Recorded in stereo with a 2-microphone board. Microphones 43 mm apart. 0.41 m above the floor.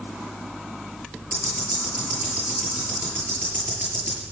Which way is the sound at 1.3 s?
50° right (ahead or behind).